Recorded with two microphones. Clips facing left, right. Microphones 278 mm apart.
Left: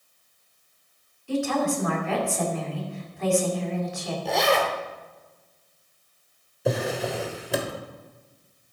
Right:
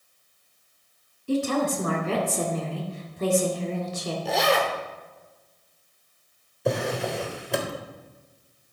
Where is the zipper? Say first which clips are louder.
Left 1 dB; centre (ahead or behind), 1.2 m.